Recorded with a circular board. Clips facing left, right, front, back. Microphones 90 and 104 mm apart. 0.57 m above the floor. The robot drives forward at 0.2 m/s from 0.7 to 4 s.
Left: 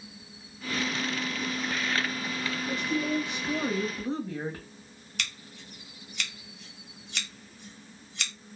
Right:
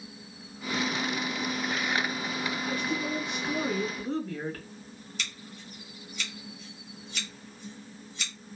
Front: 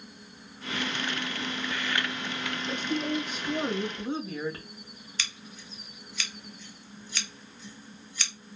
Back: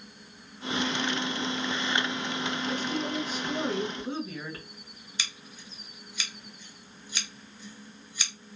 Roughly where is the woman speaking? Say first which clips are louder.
Left 4 dB, front 4 dB; ahead left.